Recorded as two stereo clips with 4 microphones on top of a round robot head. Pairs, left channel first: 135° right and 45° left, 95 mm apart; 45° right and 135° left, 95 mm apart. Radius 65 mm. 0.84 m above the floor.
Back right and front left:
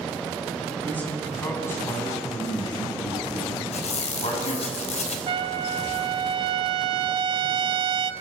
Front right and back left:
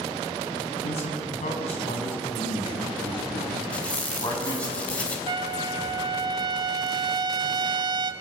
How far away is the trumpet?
About 1.0 m.